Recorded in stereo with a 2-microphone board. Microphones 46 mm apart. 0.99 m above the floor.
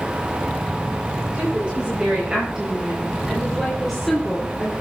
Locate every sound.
1.3 s a woman speaking: 25° right (ahead or behind), 5.5 m; by 4.7 s 25° left (ahead or behind), 2.5 m